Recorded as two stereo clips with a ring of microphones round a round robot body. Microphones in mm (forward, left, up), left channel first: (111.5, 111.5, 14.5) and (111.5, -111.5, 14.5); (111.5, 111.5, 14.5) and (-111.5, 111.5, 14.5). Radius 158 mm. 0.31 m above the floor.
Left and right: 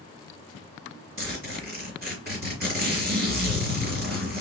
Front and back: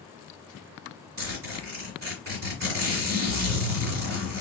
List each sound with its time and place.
1.2 s a zipper: 145° right, 2.5 m